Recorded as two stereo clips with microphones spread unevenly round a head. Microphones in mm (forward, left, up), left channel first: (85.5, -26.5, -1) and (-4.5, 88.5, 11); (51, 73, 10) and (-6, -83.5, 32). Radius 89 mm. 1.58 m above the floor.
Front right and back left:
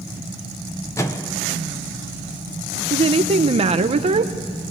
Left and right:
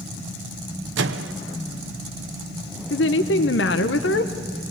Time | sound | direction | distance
1.0 | a microwave | 130° right | 0.8 m
2.9 | a woman speaking | 90° left | 0.8 m